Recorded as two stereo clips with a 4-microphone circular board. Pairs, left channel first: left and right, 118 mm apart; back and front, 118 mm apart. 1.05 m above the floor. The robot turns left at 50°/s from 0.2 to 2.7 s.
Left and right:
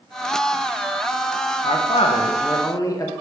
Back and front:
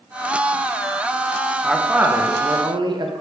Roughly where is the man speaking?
Left.